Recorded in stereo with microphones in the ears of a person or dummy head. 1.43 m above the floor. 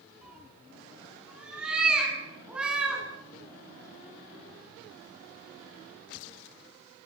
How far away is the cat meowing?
About 8 m.